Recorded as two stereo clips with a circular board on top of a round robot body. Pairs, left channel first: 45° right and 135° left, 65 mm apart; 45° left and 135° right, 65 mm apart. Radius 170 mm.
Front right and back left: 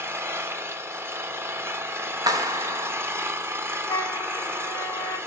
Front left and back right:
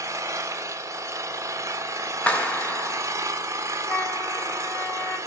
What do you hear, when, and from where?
0.0 s an engine running: 175° right, 1.0 m
2.3 s a clap: 115° left, 1.0 m
3.9 s a flute: 10° right, 1.8 m